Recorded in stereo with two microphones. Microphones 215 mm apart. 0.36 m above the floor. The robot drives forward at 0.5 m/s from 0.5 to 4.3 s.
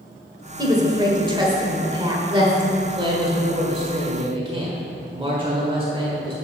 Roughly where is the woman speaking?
Centre.